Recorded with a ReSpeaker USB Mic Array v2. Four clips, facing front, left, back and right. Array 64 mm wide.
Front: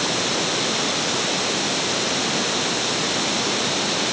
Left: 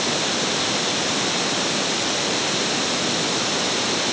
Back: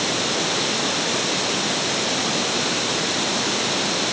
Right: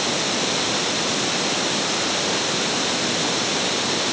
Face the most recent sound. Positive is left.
No sound to turn to.